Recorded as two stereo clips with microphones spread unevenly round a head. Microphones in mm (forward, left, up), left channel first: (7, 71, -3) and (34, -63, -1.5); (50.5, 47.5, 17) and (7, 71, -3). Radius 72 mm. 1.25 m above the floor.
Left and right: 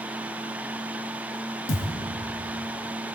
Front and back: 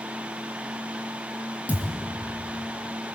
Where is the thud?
90° left, 4.5 m.